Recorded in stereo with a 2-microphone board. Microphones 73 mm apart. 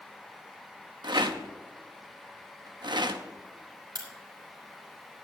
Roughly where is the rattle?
Right.